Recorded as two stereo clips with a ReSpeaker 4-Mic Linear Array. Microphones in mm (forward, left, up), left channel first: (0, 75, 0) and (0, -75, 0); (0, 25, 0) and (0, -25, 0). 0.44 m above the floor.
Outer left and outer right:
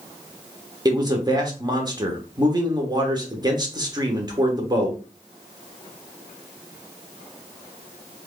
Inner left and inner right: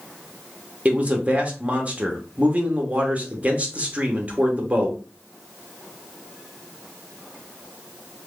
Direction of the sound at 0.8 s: 25° right (ahead or behind).